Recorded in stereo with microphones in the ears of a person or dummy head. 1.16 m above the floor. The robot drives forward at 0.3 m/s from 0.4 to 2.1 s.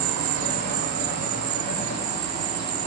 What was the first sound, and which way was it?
An insect, 45° right (ahead or behind).